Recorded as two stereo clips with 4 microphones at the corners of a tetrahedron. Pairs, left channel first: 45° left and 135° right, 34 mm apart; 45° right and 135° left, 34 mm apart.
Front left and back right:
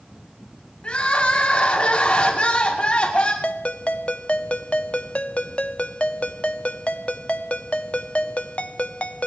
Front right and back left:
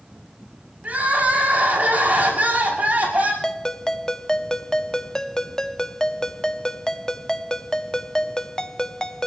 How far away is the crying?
About 5.5 m.